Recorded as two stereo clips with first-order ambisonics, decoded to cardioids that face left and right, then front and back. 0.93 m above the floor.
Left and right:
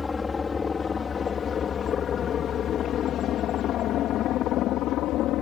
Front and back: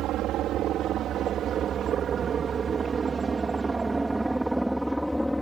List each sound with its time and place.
0.0 s a helicopter: 160° left; by 5.4 s 85° left